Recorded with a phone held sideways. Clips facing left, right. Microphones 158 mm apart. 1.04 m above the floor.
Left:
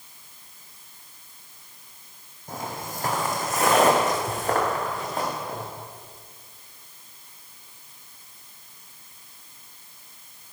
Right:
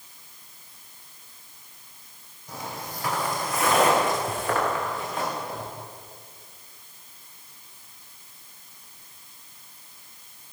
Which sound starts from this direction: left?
Footsteps, at 2.5 s.